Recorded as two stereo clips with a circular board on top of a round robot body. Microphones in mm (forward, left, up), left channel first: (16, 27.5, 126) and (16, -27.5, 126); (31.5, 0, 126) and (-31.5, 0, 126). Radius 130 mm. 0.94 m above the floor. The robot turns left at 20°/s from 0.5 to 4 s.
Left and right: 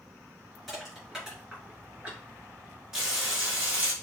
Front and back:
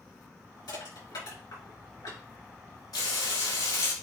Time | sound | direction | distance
0.7 | crushing | 5° left | 3.5 m
2.9 | frying | 10° right | 3 m